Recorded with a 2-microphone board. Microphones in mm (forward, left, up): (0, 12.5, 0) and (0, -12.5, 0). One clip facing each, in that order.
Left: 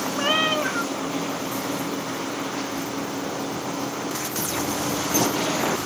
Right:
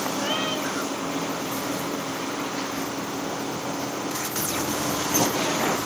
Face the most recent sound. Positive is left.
turn(degrees=50)  # may be behind; listen again after turning